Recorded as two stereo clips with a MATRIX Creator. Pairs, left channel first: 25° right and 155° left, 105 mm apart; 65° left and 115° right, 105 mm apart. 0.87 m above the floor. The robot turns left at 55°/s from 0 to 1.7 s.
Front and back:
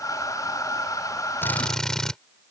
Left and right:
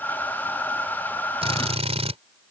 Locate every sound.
1.4 s a drill: 90° right; by 2.2 s 110° right